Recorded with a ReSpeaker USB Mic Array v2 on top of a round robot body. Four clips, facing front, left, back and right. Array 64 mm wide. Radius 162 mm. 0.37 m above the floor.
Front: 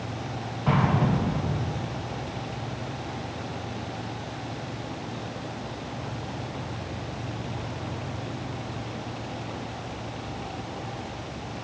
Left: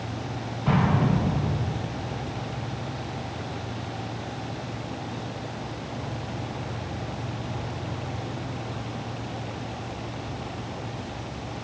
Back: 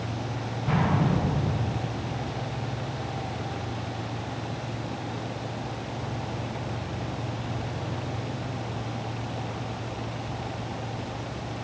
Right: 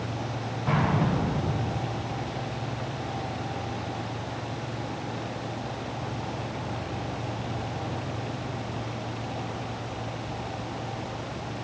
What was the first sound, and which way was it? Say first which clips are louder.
An explosion: left 2 dB, front 2 dB; 30° left.